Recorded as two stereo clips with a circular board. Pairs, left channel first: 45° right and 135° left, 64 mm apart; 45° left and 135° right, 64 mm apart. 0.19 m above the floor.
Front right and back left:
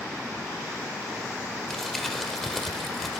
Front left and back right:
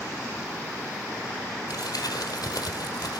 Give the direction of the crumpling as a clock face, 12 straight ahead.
11 o'clock.